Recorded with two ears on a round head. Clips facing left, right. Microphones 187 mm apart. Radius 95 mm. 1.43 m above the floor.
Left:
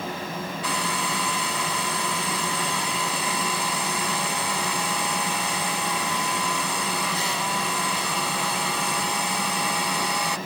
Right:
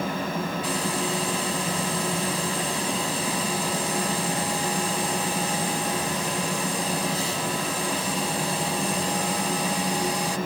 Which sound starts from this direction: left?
A hair dryer, at 0.6 s.